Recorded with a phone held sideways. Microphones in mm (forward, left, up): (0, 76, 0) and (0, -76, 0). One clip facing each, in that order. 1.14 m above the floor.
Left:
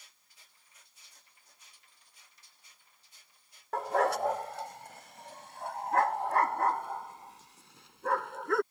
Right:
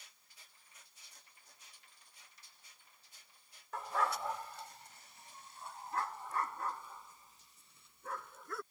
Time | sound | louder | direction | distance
3.7 | a dog barking | left 8 dB | 65° left (ahead or behind) | ?